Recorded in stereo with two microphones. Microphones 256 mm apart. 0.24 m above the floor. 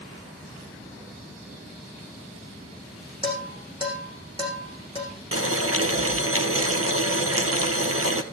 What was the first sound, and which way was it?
Dishes clattering, 20° right (ahead or behind).